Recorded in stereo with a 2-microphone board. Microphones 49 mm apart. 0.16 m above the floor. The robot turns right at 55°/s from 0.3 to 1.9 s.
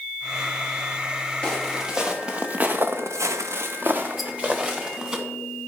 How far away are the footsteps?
About 2 m.